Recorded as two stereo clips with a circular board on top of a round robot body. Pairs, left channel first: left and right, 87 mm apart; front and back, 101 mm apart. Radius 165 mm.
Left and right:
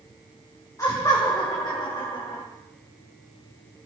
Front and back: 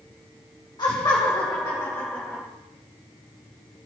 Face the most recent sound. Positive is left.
turn(degrees=80)